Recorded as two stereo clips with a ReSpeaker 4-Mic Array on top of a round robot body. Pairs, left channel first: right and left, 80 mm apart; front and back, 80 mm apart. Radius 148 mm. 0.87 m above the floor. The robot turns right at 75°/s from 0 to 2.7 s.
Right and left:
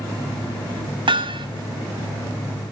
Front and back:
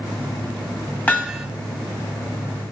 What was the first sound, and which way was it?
Hammering, 70° left.